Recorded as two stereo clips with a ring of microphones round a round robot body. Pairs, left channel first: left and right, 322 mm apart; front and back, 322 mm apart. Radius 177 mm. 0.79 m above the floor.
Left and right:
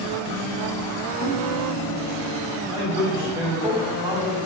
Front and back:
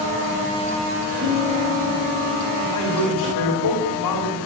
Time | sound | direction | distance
1.2 | a guitar | 130° left | 5 m
2.7 | a man speaking | 20° right | 4 m